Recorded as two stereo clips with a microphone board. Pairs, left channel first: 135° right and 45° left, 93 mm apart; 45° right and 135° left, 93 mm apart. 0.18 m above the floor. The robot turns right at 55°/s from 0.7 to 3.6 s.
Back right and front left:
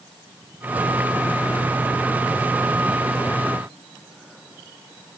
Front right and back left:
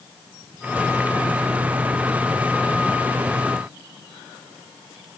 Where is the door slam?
No door slam in this recording.